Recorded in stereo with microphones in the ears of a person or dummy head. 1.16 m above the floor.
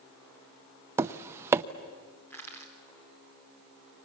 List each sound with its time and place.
1.0 s tapping: 15° right (ahead or behind), 0.5 m
2.3 s crushing: 15° left (ahead or behind), 4 m